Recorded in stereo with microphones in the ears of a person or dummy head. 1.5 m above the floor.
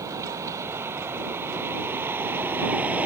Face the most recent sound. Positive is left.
turn(degrees=-10)  # may be behind; listen again after turning